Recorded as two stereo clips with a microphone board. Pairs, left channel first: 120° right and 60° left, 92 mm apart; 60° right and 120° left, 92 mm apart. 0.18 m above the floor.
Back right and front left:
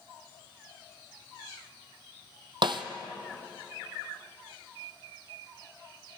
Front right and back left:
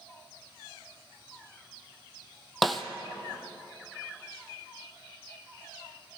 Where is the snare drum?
30° left, 1.0 m.